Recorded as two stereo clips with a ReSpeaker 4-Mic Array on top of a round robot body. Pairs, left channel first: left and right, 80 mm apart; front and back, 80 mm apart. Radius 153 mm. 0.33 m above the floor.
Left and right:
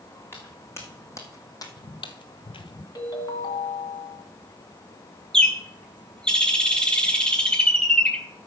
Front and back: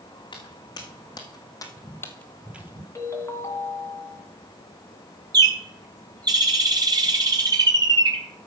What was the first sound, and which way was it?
Footsteps, 30° left.